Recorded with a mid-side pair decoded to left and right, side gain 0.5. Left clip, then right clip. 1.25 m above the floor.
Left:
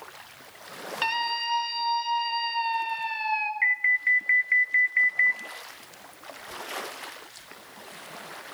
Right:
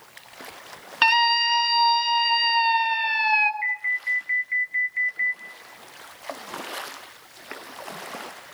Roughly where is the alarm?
Ahead left.